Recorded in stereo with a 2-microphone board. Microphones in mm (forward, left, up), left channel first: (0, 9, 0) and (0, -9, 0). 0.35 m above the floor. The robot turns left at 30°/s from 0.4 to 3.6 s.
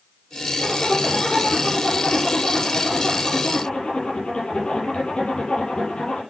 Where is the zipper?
155° left, 7 m; by 6.2 s 65° left, 7 m.